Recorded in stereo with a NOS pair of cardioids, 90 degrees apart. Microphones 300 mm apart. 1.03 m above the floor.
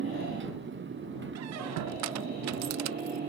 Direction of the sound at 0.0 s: 40° right.